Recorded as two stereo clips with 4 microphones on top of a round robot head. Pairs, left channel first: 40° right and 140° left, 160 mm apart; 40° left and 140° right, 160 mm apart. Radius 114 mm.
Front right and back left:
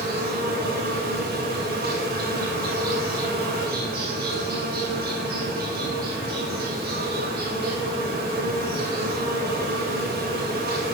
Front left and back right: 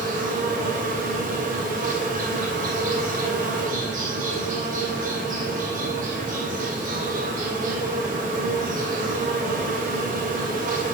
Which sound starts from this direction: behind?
An insect, at 0.0 s.